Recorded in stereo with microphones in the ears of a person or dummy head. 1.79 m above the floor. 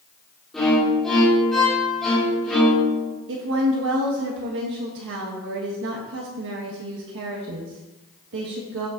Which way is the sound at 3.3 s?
70° right (ahead or behind).